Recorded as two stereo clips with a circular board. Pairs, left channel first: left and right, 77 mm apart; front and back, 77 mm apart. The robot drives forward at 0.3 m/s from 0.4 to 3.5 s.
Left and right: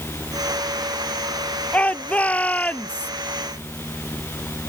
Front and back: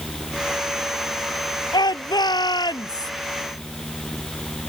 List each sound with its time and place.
1.7 s a shout: 20° left